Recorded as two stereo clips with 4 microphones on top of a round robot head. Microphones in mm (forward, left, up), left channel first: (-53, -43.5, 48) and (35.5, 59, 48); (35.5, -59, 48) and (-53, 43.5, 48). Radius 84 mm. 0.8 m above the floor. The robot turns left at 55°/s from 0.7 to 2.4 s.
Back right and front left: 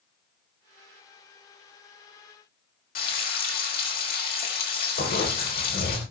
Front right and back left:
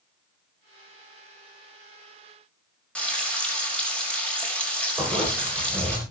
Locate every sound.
3.0 s frying: 130° right, 5 m
5.0 s a zipper: 140° right, 8 m